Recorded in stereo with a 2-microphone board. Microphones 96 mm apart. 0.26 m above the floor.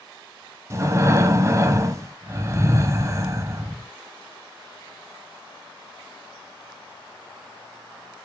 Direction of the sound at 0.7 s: 30° right (ahead or behind).